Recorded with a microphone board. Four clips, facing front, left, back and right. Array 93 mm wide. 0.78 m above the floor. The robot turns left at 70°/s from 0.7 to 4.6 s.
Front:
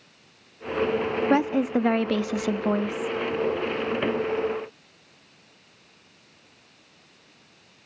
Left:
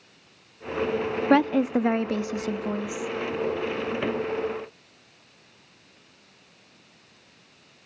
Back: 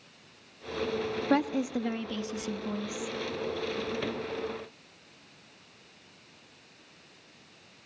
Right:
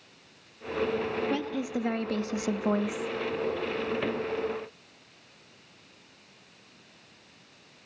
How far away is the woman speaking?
About 0.8 m.